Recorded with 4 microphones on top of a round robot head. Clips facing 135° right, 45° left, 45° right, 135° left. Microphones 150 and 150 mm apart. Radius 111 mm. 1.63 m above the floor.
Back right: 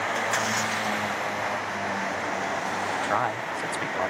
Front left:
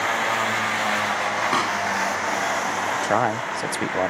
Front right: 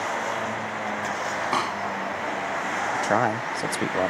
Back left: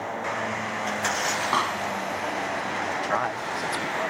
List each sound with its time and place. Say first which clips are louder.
1.5 s a pop: front left 6 dB, even; 35° left
2.9 s a man speaking: front left 7 dB, front right 7 dB; 5° right